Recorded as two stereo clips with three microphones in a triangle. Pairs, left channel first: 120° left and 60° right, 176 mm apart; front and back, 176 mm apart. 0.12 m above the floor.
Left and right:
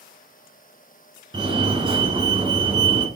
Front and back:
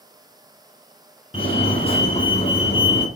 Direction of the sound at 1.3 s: 20° right.